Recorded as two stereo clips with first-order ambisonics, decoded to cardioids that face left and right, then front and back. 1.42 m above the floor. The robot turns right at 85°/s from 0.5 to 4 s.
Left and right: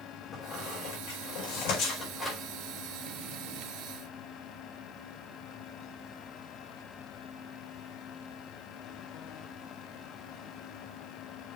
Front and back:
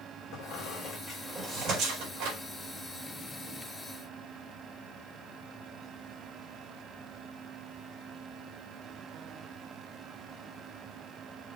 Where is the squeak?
20° left, 4.5 m; by 2.4 s straight behind, 4.5 m.